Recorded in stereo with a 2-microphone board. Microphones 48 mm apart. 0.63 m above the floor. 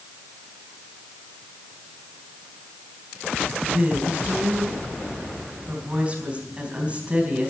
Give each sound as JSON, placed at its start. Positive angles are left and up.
{"t": 3.6, "sound": "a woman speaking", "side_deg": -25, "distance_m": 4.0}